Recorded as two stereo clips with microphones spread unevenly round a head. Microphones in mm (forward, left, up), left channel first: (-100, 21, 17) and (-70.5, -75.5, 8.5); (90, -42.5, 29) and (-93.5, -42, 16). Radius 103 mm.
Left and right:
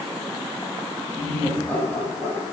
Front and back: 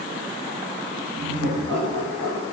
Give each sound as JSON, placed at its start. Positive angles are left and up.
{"t": 1.1, "sound": "laughter", "azimuth_deg": 170, "distance_m": 7.0}